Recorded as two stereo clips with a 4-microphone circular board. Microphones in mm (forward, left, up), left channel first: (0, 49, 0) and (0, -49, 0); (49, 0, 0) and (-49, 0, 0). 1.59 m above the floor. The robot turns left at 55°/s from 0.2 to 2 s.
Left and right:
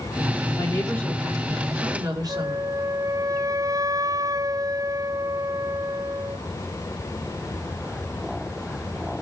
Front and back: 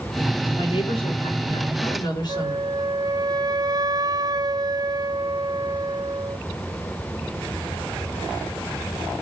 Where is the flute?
140° right, 0.5 m.